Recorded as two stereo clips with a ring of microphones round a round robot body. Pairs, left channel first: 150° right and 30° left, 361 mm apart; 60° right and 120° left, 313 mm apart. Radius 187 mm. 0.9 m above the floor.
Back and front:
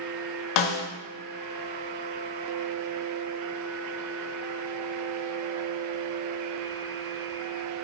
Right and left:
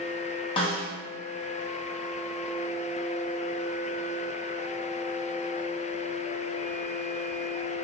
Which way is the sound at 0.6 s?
135° right.